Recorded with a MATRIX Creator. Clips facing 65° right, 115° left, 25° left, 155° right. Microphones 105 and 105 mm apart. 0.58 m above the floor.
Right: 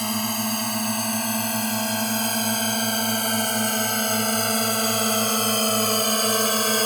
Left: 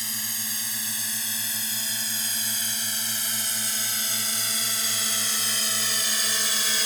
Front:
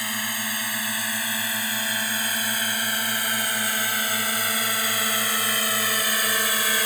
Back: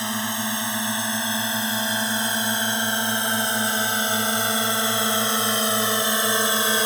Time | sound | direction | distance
0.0 | a drone | 90° right | ?